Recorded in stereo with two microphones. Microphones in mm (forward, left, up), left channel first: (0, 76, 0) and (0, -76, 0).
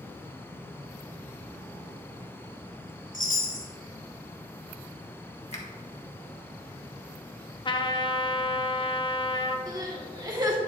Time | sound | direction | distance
3.1 | a chime | 65° left (ahead or behind) | 2.0 m
5.5 | a finger snap | 45° left (ahead or behind) | 1.4 m
7.7 | a trumpet | 35° left (ahead or behind) | 0.5 m
9.7 | crying | 25° right (ahead or behind) | 1.3 m